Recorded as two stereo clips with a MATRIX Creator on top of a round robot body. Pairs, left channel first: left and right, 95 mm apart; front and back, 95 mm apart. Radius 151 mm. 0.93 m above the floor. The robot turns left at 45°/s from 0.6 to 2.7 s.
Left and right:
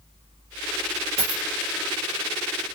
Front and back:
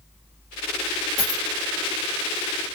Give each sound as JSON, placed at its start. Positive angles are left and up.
{"t": 1.2, "sound": "a dropped coin", "azimuth_deg": -90, "distance_m": 0.9}